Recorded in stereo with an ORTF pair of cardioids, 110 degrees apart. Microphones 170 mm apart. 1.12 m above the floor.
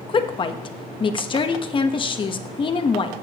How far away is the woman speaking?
About 1.0 m.